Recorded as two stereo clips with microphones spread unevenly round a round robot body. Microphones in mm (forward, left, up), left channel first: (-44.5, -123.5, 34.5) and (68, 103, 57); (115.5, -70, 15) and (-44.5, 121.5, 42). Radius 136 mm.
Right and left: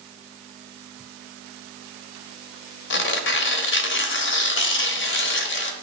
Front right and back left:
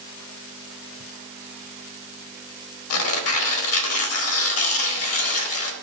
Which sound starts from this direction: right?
Tearing paper, at 2.9 s.